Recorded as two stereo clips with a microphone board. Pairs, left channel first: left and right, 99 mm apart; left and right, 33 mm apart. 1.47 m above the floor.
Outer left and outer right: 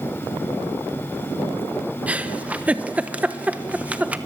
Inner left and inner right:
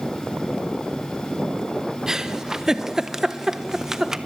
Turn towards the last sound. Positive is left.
turn(degrees=-15)  # may be behind; listen again after turning